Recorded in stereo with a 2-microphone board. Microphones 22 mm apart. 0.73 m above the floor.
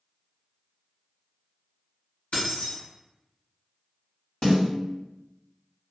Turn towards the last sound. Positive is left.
turn(degrees=55)  # may be behind; listen again after turning